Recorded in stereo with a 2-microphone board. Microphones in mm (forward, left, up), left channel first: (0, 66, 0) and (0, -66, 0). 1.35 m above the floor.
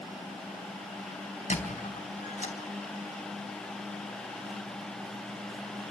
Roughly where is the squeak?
Left.